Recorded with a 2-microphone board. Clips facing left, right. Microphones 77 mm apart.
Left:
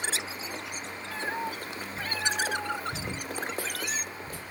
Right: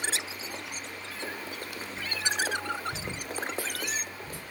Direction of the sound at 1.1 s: 70° left (ahead or behind).